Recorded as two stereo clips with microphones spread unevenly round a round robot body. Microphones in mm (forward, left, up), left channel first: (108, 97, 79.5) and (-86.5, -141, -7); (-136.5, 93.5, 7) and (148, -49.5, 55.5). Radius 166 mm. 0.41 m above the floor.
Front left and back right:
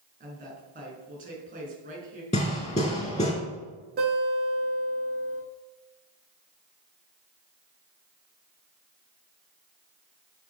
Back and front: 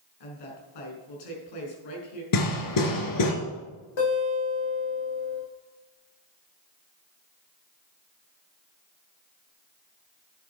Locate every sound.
0.2 s a woman speaking: 165° left, 5 m
2.3 s hammering: 125° left, 2.5 m
4.0 s a guitar: 165° left, 6 m